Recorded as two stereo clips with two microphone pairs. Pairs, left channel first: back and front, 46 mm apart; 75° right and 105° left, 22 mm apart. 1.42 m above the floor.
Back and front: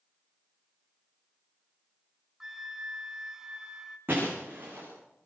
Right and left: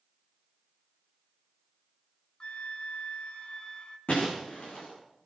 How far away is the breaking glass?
About 9.5 m.